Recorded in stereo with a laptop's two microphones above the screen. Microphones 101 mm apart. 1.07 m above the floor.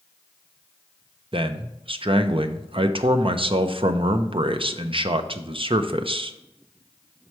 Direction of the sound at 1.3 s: 60° right (ahead or behind).